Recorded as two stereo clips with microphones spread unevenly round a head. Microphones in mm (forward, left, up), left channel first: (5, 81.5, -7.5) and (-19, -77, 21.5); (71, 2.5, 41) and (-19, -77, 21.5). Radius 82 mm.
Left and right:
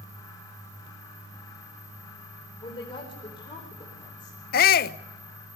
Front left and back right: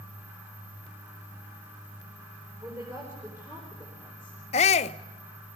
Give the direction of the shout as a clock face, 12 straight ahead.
9 o'clock.